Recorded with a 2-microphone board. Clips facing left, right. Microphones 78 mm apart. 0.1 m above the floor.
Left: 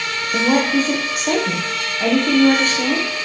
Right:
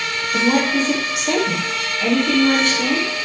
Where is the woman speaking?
45° left (ahead or behind), 6.5 m.